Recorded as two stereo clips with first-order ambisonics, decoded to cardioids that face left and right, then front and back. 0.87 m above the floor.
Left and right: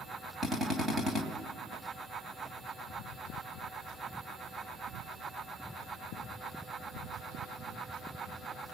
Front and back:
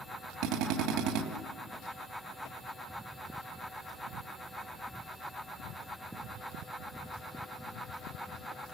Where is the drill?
165° right, 2.5 m.